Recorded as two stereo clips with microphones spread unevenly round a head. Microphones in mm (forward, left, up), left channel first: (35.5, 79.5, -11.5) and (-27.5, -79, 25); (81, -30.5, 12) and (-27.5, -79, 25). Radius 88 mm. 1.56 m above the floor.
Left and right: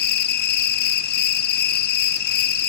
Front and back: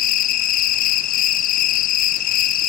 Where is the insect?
30° left, 0.8 m.